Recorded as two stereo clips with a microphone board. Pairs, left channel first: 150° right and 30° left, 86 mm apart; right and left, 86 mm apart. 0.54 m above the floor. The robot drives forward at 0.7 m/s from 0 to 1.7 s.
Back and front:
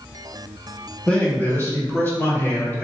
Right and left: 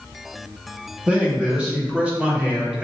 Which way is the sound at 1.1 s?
145° left.